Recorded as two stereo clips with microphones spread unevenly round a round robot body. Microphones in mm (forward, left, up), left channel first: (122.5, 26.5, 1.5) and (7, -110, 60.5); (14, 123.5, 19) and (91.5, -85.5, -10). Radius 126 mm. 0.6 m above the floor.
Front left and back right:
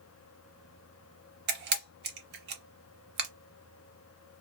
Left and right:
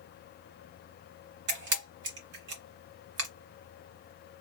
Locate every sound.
1.5 s a camera shutter: 120° right, 0.9 m